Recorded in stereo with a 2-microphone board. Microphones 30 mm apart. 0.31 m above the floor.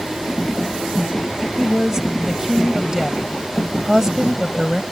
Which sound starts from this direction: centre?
A woman speaking, at 1.6 s.